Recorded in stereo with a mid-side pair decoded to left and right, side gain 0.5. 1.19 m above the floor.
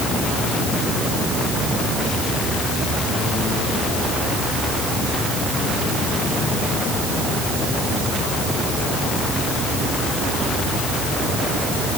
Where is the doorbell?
No doorbell in this recording.